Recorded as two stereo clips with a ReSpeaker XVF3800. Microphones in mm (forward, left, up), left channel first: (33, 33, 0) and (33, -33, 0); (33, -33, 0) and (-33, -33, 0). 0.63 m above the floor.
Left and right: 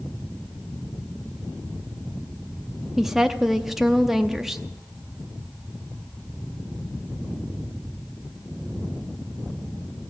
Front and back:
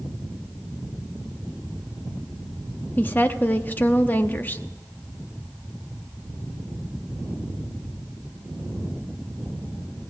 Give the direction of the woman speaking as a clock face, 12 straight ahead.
12 o'clock.